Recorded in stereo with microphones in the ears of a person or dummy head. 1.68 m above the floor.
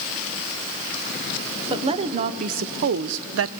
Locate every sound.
1.7 s a woman speaking: 30° right (ahead or behind), 1.1 m; by 3.5 s 75° right (ahead or behind), 0.6 m